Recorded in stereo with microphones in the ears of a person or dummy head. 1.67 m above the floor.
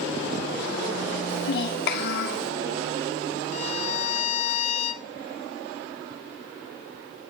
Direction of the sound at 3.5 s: 50° left (ahead or behind).